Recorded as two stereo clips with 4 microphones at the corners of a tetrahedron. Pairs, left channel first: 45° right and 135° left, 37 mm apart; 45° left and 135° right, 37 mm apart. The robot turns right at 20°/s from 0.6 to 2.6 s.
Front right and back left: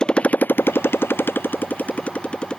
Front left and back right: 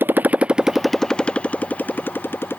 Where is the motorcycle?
115° right; by 2.6 s 25° left.